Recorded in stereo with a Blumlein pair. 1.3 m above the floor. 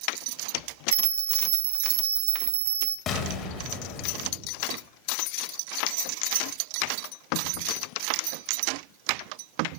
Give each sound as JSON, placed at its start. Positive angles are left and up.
{"t": 0.9, "sound": "a bell", "azimuth_deg": -65, "distance_m": 0.8}
{"t": 3.1, "sound": "an explosion", "azimuth_deg": 30, "distance_m": 1.8}